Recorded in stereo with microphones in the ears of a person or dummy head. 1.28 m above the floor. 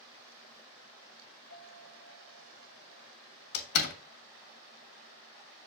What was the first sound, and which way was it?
A piano, 55° right (ahead or behind).